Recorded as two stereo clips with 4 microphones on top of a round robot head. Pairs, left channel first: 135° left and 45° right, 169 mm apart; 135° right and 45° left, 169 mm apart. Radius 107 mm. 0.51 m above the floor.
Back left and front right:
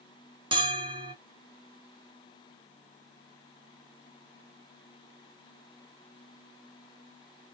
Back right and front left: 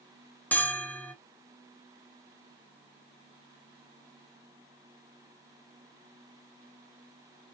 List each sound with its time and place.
0.5 s a bell: 65° right, 1.2 m